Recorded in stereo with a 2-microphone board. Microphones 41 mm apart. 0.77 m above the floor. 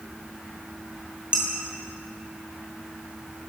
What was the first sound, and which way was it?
Dishes clattering, 25° right (ahead or behind).